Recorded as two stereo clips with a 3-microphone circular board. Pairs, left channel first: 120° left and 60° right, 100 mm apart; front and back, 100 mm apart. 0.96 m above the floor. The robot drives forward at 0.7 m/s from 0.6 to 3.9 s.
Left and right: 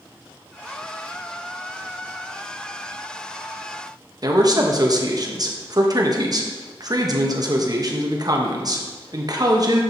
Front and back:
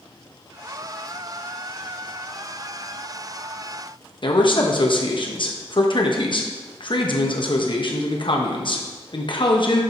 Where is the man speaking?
20° right, 1.0 m.